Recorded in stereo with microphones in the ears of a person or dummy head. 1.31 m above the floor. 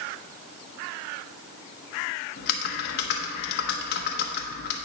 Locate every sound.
2.4 s typing on a keyboard: 55° left (ahead or behind), 1.0 m